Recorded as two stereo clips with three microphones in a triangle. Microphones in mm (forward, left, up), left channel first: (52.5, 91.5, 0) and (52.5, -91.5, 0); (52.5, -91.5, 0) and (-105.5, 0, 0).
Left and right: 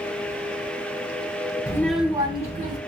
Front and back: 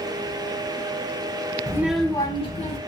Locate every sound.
1.7 s a child speaking: 120° left, 0.6 m; by 2.8 s 60° right, 0.8 m